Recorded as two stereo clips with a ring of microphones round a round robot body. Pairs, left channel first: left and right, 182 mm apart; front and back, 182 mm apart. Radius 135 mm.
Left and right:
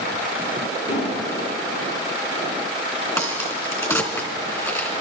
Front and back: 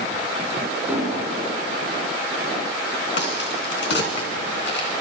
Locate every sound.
0.9 s an explosion: 100° left, 5.5 m
3.2 s a crack: 15° left, 2.5 m